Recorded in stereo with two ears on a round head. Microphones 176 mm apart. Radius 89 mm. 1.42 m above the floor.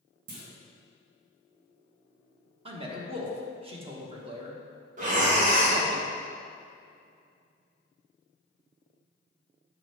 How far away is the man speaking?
About 1.2 m.